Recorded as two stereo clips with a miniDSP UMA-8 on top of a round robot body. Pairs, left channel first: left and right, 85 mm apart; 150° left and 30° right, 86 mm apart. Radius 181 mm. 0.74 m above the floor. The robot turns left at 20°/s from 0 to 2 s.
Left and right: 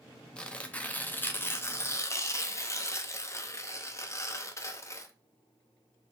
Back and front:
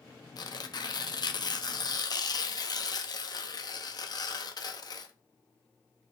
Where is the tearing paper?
165° left, 0.7 m; by 5.1 s 135° left, 0.7 m.